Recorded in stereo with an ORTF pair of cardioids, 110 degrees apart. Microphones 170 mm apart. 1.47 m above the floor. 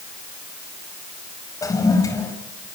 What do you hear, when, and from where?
1.6 s a toilet flushing: 20° left, 6 m